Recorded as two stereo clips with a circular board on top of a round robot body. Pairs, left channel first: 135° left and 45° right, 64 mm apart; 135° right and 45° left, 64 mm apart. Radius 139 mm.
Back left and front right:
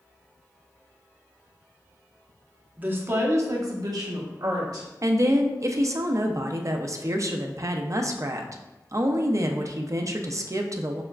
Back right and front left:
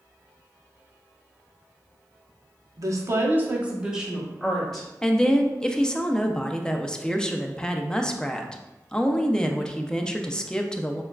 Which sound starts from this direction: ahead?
A woman speaking, at 2.8 s.